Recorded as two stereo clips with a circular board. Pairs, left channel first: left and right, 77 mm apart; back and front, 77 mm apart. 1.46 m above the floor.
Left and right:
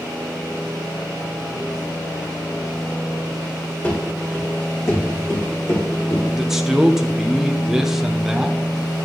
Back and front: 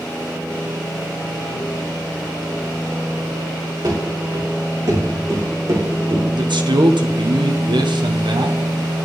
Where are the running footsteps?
30° left, 6.5 m; by 6.2 s 55° left, 5 m.